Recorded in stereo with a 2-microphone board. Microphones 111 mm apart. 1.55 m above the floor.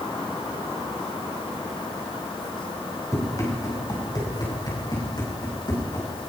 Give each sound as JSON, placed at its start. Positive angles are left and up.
{"t": 3.1, "sound": "running footsteps", "side_deg": 30, "distance_m": 7.0}